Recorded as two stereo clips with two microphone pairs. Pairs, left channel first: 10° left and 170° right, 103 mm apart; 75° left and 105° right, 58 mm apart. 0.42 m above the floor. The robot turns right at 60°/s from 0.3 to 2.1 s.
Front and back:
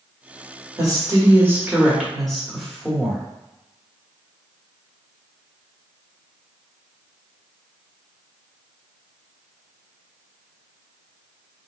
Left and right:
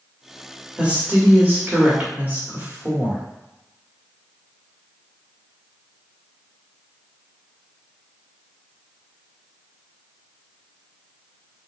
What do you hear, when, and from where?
0.8 s a woman speaking: 155° right, 1.5 m; by 3.2 s 80° right, 1.5 m